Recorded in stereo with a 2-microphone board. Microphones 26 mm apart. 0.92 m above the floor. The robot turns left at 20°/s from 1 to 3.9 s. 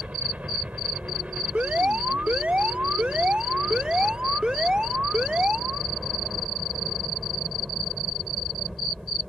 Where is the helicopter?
95° right; by 9.3 s 155° right.